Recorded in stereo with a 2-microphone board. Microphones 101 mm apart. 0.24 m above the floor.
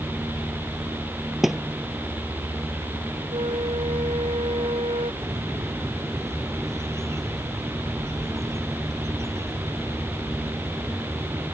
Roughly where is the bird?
Right.